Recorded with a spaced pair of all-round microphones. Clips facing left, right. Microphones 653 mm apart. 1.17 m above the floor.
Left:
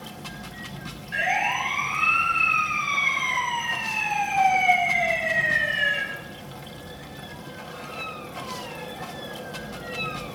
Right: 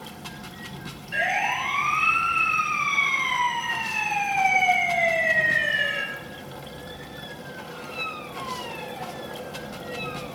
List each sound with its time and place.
0.0 s running water: 5° left (ahead or behind), 0.7 m
1.1 s a siren: 15° right (ahead or behind), 8.5 m; by 6.0 s 25° left (ahead or behind), 6 m